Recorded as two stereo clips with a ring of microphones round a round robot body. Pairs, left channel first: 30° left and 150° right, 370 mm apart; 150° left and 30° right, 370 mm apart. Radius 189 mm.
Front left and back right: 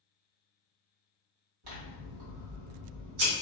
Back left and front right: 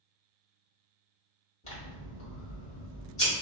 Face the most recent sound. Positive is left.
turn(degrees=-140)